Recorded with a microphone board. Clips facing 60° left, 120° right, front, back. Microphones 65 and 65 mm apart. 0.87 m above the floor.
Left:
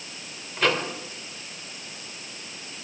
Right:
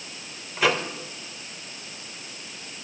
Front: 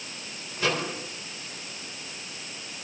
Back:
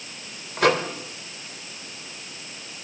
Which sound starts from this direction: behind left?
A microwave, at 0.6 s.